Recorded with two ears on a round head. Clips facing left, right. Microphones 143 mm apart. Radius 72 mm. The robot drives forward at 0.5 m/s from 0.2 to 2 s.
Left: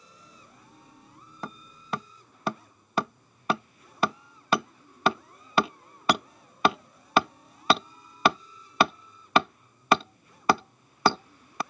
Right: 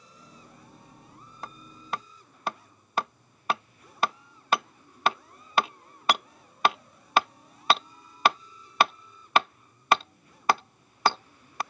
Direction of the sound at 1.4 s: 70° left (ahead or behind).